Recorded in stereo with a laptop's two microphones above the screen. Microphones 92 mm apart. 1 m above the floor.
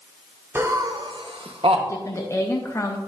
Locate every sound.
0.6 s laughter: 25° right (ahead or behind), 0.6 m; by 1.8 s 75° right (ahead or behind), 1.0 m
1.9 s a woman speaking: 30° left (ahead or behind), 0.5 m